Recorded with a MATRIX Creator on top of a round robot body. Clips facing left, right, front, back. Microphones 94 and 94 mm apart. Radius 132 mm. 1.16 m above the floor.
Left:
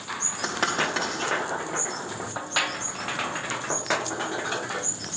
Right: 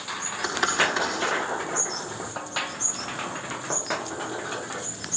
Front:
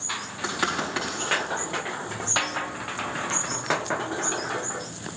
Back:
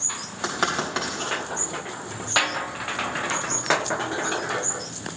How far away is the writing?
About 4 m.